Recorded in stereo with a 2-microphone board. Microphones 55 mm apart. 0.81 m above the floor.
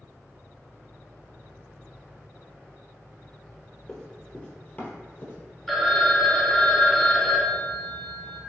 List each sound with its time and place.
3.9 s running footsteps: 10° left (ahead or behind), 0.9 m; by 5.4 s 35° left (ahead or behind), 1.0 m
5.7 s a phone ringing: 5° left (ahead or behind), 0.6 m